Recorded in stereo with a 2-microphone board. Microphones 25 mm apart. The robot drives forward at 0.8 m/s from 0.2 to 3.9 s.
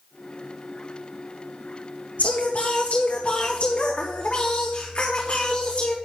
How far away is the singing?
About 2 m.